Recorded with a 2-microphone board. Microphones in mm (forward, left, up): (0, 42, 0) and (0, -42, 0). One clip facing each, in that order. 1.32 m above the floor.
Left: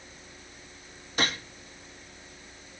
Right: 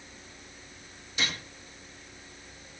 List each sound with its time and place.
1.2 s a gunshot: 50° left (ahead or behind), 2 m